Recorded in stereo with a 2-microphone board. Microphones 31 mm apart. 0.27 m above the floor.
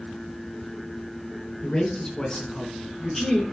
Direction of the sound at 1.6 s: 25° left (ahead or behind).